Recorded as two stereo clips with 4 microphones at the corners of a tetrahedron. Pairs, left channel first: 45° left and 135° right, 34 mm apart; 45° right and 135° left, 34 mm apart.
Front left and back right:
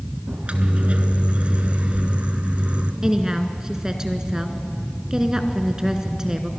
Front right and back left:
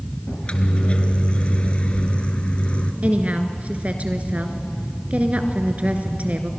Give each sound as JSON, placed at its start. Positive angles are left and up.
{"t": 0.3, "sound": "a microwave", "azimuth_deg": -90, "distance_m": 1.4}
{"t": 3.0, "sound": "a woman speaking", "azimuth_deg": 160, "distance_m": 1.8}